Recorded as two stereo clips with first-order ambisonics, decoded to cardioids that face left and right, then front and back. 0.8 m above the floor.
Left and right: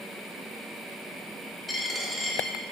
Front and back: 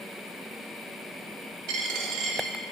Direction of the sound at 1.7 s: 170° left.